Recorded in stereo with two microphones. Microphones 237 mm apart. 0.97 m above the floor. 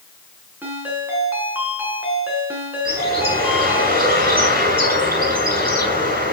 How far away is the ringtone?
About 8.5 m.